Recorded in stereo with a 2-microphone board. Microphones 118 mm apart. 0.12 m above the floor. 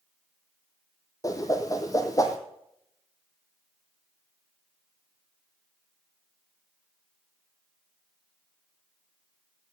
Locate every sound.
1.2 s a whoosh: 30° left (ahead or behind), 1.2 m